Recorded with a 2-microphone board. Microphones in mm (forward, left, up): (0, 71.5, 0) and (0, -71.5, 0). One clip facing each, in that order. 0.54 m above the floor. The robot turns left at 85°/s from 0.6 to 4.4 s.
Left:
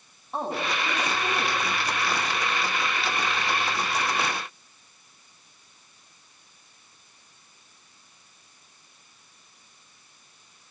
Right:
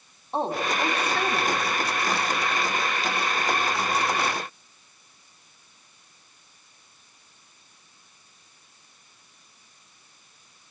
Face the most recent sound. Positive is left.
turn(degrees=5)